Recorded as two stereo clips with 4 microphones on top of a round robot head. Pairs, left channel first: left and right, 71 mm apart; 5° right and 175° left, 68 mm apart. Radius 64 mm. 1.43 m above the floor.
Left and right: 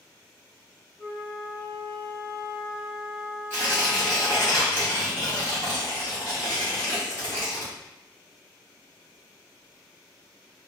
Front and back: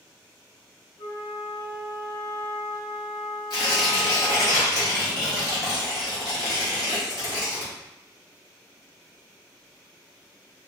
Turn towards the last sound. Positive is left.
turn(degrees=25)